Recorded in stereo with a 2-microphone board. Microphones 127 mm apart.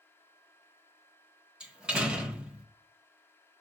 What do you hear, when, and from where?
1.6 s a door slam: 5° right (ahead or behind), 1.0 m